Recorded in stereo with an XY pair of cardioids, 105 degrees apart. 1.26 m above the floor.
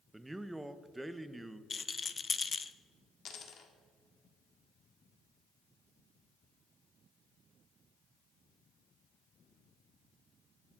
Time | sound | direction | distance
0.1 | a man speaking | 15° right | 0.8 m
1.7 | a rattle | 30° left | 0.6 m
3.2 | a dropped coin | 60° left | 1.6 m